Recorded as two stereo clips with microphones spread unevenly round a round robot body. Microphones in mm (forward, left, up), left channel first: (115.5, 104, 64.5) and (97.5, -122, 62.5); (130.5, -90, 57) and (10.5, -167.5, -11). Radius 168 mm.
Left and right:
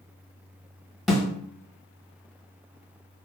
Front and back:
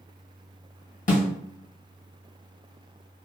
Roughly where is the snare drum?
Ahead.